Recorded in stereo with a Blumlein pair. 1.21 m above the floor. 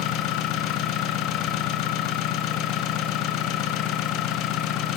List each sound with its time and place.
0.0 s an engine running: 40° left, 1.2 m